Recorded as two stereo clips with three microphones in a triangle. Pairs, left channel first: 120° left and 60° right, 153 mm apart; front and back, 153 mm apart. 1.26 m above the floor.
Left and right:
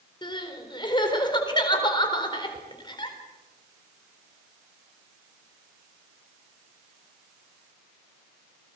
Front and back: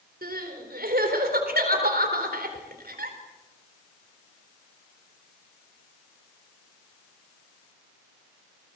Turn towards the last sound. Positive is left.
turn(degrees=180)